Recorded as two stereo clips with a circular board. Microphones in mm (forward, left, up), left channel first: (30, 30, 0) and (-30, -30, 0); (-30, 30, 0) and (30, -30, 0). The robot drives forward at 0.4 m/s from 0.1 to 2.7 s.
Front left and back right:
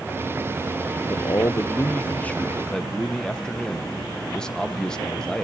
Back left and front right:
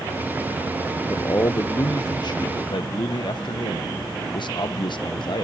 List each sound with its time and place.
1.1 s a man speaking: 80° left, 0.8 m; by 5.4 s 125° left, 1.0 m